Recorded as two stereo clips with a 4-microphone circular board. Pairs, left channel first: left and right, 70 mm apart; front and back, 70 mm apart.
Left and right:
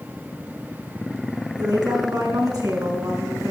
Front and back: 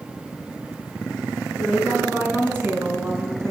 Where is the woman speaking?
105° right, 6.5 m; by 3.5 s 135° right, 4.5 m.